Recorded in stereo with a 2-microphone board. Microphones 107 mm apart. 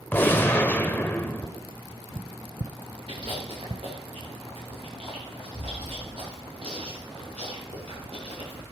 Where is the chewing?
60° right (ahead or behind), 9 m.